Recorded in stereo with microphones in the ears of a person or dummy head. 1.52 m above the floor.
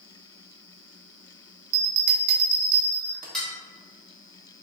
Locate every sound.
1.7 s a bell: 60° right (ahead or behind), 1.2 m
3.3 s dishes clattering: centre (ahead or behind), 1.3 m